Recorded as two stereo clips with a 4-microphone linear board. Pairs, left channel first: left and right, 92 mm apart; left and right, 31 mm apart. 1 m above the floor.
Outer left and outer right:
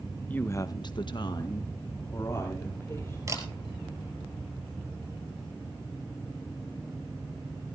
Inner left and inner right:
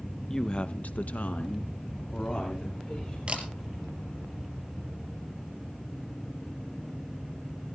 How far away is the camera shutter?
About 3.5 m.